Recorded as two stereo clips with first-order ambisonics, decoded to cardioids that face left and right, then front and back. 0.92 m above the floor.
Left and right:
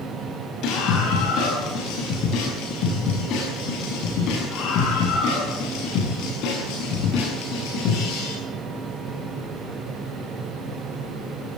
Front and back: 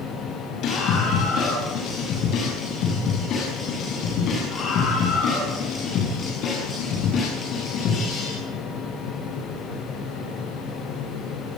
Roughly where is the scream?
Ahead left.